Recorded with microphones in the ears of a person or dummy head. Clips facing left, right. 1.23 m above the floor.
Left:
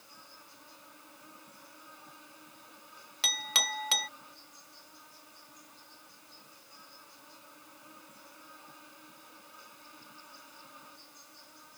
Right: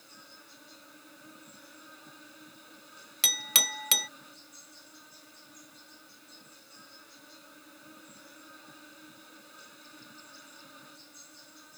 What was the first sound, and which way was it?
An insect, 15° right (ahead or behind).